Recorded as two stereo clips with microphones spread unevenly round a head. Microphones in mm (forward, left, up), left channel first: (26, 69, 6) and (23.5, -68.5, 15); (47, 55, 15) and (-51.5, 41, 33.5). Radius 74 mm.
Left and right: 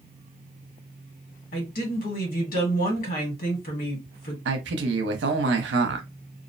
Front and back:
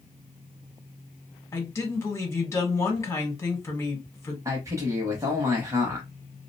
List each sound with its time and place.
1.5 s a woman speaking: 70° left, 1.5 m
4.5 s a man speaking: 100° right, 0.7 m